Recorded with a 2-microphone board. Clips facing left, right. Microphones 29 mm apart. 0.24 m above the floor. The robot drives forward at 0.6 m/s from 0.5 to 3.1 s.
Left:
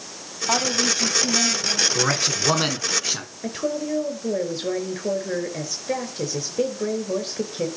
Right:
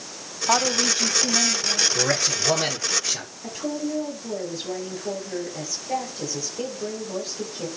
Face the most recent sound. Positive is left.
turn(degrees=70)  # may be behind; listen again after turning